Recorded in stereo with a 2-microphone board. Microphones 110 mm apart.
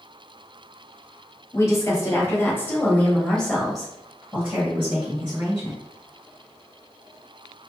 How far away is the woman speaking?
About 1.6 m.